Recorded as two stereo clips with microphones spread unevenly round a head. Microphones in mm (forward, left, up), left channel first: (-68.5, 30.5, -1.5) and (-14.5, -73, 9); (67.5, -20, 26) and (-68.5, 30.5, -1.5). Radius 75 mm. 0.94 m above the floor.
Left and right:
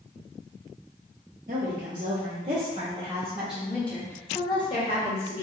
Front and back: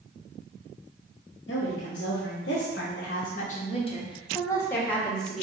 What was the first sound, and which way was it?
A woman speaking, 30° right.